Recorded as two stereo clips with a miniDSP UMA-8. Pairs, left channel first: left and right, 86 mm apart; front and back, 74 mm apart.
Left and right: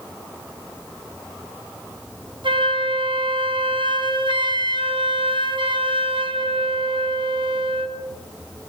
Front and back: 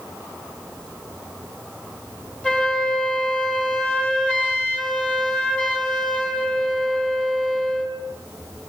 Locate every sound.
2.4 s a flute: 75° right, 6 m